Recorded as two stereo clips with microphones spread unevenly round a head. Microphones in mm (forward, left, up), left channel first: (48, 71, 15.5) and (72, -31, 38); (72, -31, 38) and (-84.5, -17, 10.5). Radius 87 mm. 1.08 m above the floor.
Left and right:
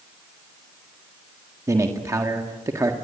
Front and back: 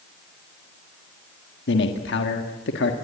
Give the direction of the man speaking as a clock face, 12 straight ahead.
1 o'clock.